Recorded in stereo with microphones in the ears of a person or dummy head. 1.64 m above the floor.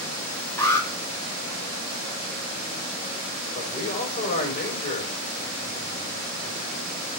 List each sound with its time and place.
0.6 s an alarm: 15° left (ahead or behind), 2.5 m
3.5 s a man speaking: 35° left (ahead or behind), 6 m